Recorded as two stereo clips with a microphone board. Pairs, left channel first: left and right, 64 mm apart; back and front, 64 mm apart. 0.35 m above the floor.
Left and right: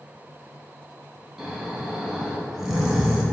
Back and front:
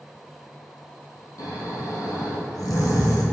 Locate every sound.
1.4 s snoring: 175° right, 2.5 m